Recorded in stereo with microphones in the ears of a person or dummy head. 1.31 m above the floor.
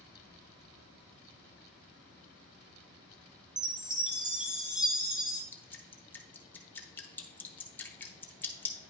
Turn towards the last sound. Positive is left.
turn(degrees=10)  # may be behind; listen again after turning